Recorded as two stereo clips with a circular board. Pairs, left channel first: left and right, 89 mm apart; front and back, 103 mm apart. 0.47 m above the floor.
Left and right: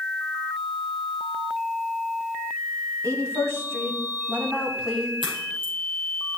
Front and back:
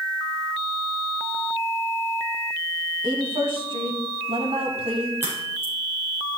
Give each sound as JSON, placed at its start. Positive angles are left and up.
{"t": 3.0, "sound": "a woman speaking", "azimuth_deg": -140, "distance_m": 3.0}
{"t": 5.2, "sound": "a crack", "azimuth_deg": -110, "distance_m": 5.5}